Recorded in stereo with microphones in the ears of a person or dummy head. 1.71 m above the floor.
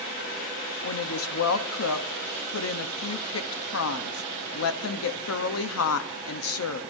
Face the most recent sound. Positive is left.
turn(degrees=85)